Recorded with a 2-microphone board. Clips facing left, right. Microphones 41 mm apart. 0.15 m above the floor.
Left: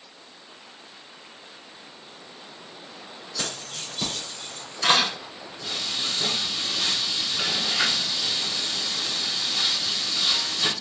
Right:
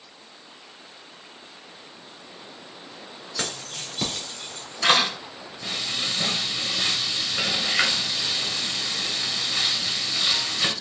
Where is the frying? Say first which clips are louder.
Right 1 dB; 55° right (ahead or behind), 1.6 m.